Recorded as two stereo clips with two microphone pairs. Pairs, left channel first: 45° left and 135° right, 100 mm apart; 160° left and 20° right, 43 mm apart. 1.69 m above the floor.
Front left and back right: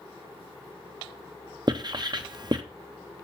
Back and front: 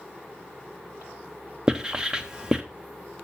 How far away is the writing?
About 0.9 m.